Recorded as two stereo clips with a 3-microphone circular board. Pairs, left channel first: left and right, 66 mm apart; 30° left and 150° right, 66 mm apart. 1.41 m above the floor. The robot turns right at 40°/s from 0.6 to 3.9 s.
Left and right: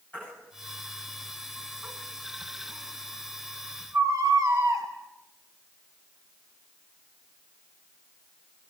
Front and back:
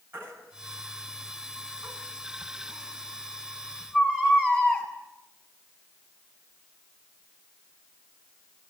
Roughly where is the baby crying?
Behind left.